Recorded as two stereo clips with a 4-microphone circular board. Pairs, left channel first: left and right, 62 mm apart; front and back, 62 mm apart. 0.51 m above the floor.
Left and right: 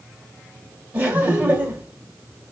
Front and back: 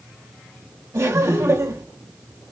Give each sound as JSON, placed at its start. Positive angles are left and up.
{"t": 0.9, "sound": "laughter", "azimuth_deg": -155, "distance_m": 2.5}